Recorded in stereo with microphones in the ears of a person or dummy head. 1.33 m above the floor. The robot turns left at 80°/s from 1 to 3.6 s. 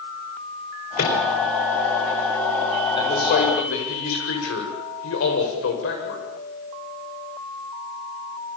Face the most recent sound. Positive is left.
turn(degrees=100)